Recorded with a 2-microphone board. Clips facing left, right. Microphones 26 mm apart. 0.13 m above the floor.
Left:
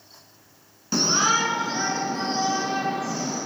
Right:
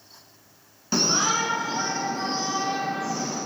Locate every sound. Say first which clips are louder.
0.9 s a shout: left 2 dB; 10° right (ahead or behind), 1.0 m; by 3.4 s 75° left (ahead or behind), 3.5 m